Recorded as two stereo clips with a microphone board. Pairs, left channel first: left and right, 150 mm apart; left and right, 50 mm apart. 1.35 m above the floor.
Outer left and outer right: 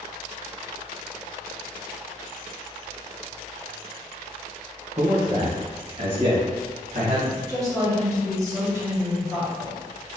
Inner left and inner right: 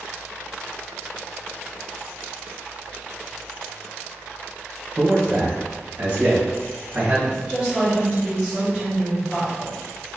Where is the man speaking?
40° right (ahead or behind), 1.0 m; by 7.2 s 55° right (ahead or behind), 2.5 m.